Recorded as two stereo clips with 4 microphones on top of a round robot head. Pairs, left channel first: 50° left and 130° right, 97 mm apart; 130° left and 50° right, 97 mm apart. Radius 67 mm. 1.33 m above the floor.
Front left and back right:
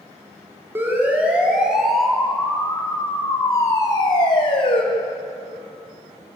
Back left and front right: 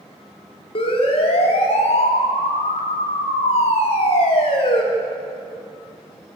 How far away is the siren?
About 3.5 m.